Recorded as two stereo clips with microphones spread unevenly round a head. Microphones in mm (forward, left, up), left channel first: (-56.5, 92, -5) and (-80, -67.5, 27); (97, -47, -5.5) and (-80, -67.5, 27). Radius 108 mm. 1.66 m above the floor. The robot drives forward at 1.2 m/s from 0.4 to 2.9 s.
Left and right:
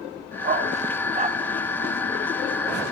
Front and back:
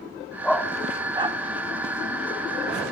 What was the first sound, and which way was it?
A dog barking, 85° right.